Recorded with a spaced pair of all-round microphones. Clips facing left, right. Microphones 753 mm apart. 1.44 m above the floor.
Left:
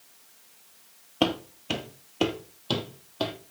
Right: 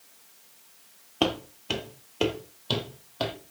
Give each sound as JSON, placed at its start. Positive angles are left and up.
{"t": 1.2, "sound": "footsteps", "side_deg": 5, "distance_m": 1.5}